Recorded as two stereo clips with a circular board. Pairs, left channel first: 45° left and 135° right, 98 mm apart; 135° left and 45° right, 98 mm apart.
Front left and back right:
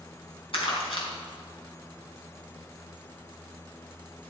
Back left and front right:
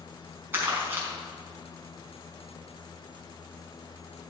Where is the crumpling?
25° left, 4.5 m.